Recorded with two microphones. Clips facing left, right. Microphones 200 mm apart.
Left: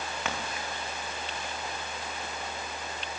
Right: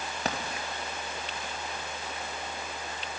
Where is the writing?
40° right (ahead or behind), 6 m.